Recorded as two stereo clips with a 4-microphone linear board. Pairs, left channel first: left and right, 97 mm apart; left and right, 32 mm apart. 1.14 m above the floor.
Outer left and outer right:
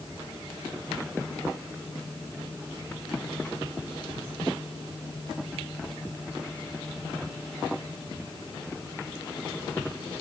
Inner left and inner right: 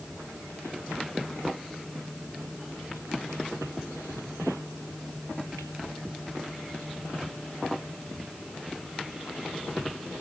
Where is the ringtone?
I don't hear a ringtone.